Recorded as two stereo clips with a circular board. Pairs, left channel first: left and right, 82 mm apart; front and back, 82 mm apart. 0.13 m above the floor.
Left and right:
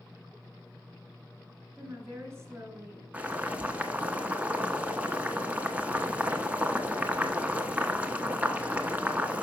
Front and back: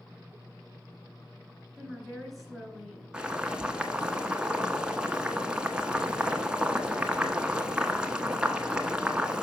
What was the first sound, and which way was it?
A woman speaking, 85° right.